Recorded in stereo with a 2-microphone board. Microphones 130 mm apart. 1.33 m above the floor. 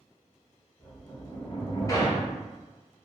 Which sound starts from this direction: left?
A sliding door, at 0.8 s.